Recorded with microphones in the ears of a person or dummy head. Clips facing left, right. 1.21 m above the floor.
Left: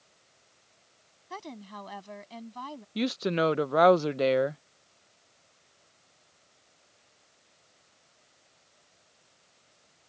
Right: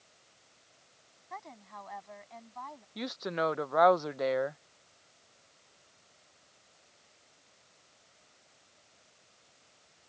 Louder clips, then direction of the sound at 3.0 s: Left 7 dB; 35° left (ahead or behind).